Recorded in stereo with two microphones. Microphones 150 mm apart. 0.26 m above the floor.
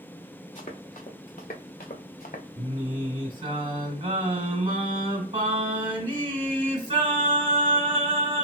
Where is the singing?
40° right (ahead or behind), 1.4 m.